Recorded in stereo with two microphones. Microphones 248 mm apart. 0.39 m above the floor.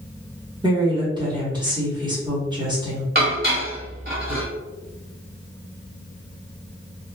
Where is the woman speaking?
20° right (ahead or behind), 0.9 m.